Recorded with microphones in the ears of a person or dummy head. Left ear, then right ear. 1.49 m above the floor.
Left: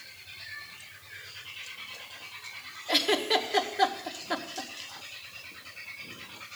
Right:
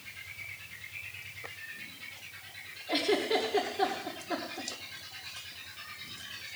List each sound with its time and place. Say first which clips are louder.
2.9 s a giggle: left 3 dB; 30° left (ahead or behind), 1.1 m